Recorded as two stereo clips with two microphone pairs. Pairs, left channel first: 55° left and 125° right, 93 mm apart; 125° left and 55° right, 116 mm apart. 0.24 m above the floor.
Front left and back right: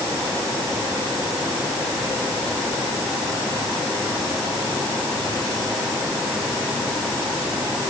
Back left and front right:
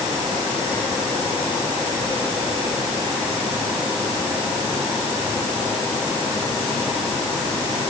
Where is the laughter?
No laughter in this recording.